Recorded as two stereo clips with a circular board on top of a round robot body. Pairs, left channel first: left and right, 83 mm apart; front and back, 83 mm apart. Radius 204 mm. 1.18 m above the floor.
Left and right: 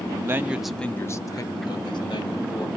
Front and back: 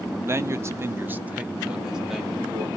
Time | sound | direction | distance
0.3 | a man speaking | 135° right | 0.7 m